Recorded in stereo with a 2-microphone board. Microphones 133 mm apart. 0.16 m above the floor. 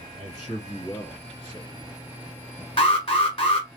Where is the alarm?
40° left (ahead or behind), 1.4 m.